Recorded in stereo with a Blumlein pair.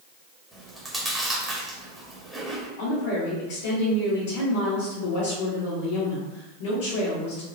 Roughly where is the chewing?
Ahead.